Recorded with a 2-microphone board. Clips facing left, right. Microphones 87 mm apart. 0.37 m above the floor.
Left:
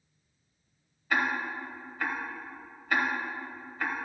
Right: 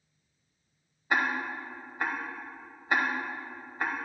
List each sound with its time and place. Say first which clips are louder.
1.1 s ticking: even; 20° right (ahead or behind), 1.0 m